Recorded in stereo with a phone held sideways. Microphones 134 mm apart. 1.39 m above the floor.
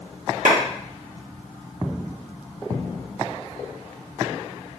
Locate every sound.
0.5 s a clap: 75° right (ahead or behind), 1.0 m